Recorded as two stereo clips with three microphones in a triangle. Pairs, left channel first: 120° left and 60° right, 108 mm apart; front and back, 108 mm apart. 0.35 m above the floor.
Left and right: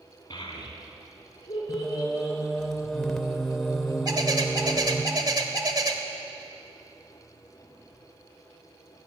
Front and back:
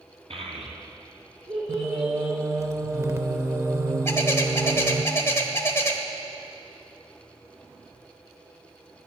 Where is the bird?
50° right, 1.1 m.